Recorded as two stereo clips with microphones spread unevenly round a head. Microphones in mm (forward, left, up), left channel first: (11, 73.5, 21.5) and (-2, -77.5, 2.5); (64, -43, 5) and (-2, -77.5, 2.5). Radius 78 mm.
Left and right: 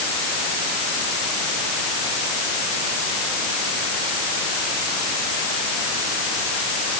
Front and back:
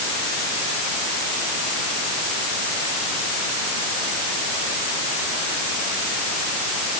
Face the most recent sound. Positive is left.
No sound to turn to.